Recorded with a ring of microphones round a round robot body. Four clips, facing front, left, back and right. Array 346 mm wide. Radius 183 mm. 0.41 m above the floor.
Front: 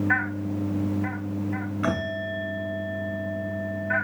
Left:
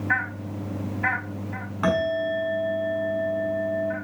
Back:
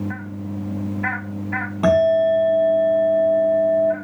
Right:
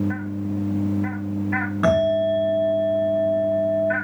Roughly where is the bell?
Behind right.